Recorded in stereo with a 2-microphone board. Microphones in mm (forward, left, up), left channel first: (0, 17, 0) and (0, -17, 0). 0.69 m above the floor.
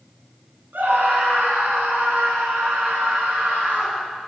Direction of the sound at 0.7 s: 80° right.